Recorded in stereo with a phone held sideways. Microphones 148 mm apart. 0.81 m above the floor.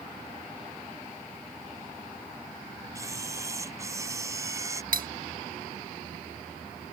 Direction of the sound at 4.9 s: 75° right (ahead or behind).